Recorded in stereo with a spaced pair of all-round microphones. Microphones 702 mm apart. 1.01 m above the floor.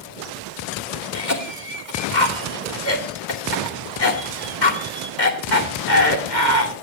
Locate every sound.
1.1 s a cough: 75° left (ahead or behind), 2.5 m